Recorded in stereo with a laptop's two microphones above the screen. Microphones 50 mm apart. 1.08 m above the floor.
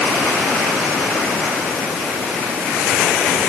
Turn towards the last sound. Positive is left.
No sound to turn to.